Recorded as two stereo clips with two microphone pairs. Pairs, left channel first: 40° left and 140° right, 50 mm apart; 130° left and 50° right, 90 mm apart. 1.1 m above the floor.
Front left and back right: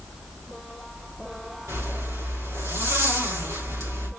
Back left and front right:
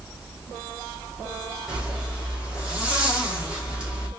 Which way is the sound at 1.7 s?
125° right.